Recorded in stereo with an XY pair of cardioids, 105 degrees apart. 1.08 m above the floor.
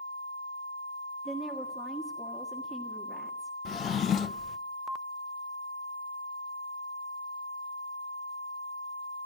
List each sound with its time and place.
1.2 s a woman speaking: 15° right, 1.6 m
3.6 s a drawer: 55° left, 0.5 m